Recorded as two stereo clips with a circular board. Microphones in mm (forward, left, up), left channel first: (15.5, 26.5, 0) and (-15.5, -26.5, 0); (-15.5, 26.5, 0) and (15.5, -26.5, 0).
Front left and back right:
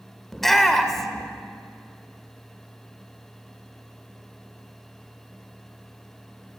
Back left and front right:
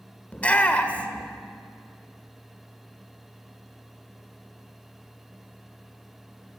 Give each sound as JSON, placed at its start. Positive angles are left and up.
{"t": 0.3, "sound": "a shout", "azimuth_deg": 135, "distance_m": 1.5}